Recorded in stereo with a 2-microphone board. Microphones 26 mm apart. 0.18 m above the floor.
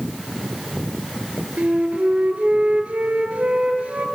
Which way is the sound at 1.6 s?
65° right (ahead or behind).